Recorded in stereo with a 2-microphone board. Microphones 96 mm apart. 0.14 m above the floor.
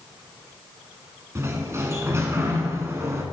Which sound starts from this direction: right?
A sliding door, at 1.4 s.